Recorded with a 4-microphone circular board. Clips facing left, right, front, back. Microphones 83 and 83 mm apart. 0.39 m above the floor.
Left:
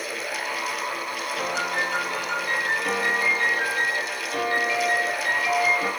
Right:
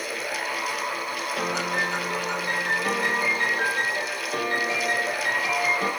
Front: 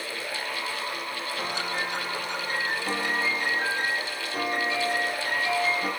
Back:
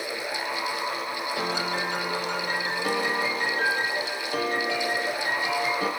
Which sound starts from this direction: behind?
A piano, at 1.4 s.